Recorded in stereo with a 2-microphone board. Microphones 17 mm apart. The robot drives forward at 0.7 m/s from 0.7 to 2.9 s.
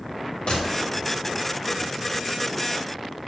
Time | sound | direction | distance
0.5 | a gunshot | 70° left (ahead or behind) | 2 m